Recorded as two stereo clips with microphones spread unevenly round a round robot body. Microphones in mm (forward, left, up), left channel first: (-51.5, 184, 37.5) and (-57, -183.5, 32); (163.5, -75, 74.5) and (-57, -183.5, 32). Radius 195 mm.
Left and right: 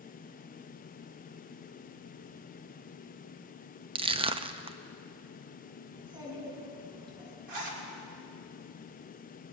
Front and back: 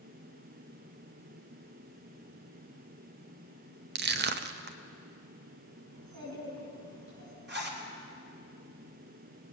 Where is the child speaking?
170° right, 7 m.